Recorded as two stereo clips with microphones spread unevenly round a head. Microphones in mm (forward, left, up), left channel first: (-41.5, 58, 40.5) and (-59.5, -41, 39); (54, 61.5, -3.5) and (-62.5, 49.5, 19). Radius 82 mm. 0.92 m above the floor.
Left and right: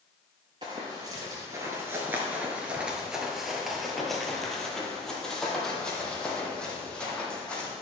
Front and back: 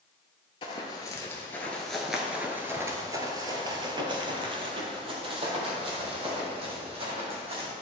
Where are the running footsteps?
50° right, 1.1 m; by 7.7 s 160° left, 3 m.